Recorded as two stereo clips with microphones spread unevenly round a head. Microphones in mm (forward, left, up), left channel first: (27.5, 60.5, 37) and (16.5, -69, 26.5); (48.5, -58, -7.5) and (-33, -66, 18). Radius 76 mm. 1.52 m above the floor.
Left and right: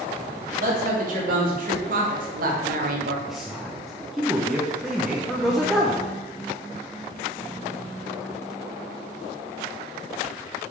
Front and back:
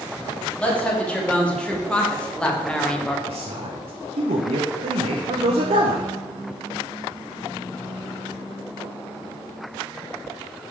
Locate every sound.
0.6 s a woman speaking: 75° right, 2.5 m; by 3.2 s 80° right, 1.0 m
3.3 s a man speaking: straight behind, 0.8 m